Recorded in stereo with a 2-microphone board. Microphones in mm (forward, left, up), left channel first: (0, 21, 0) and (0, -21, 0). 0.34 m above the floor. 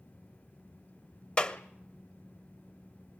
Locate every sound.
1.4 s a clap: 25° left (ahead or behind), 1.3 m